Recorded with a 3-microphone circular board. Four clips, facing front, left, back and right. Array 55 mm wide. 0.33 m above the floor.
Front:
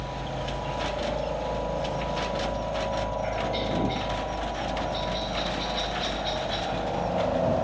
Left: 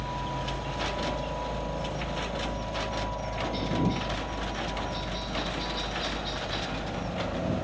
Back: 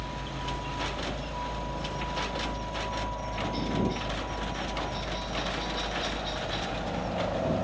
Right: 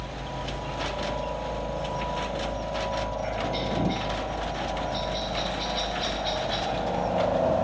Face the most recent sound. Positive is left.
turn(degrees=-65)